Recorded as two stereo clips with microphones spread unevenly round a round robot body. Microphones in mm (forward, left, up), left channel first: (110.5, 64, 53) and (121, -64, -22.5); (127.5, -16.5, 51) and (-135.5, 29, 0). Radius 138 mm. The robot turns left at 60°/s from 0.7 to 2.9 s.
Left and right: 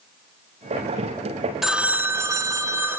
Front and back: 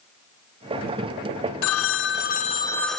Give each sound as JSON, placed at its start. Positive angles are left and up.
{"t": 1.6, "sound": "a phone ringing", "azimuth_deg": -30, "distance_m": 0.6}